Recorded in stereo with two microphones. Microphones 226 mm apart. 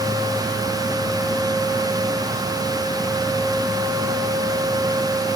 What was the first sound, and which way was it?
Only background noise.